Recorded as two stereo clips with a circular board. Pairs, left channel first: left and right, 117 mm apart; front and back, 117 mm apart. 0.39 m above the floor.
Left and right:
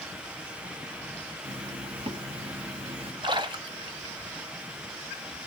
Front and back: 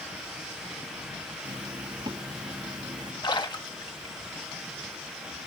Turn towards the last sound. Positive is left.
turn(degrees=-45)